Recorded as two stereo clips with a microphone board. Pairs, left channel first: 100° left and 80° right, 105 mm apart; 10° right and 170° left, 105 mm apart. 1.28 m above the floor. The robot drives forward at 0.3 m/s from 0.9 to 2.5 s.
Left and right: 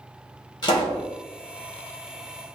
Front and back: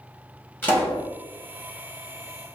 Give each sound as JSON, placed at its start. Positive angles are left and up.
{"t": 0.6, "sound": "a pop", "azimuth_deg": 55, "distance_m": 1.5}